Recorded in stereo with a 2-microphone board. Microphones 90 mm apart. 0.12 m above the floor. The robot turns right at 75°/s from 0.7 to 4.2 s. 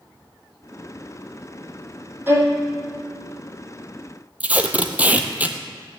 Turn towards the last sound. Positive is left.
turn(degrees=-15)  # may be behind; listen again after turning